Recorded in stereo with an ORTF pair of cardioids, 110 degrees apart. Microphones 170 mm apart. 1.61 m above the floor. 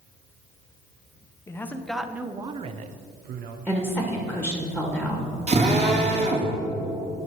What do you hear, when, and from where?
1.5 s a man speaking: 15° left, 0.9 m; by 3.6 s 75° right, 0.9 m
3.7 s a woman speaking: 5° right, 1.8 m
5.5 s a drill: 40° right, 2.5 m